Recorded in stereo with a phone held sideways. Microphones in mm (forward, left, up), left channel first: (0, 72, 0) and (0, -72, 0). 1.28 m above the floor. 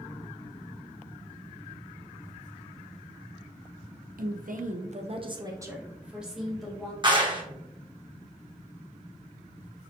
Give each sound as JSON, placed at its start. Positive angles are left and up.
{"t": 4.2, "sound": "a woman speaking", "side_deg": -85, "distance_m": 0.7}
{"t": 7.0, "sound": "a clap", "side_deg": -35, "distance_m": 1.0}